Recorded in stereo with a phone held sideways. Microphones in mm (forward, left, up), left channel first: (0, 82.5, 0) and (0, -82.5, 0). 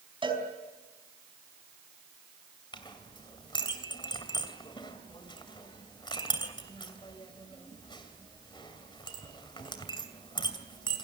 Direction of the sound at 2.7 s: 30° left (ahead or behind).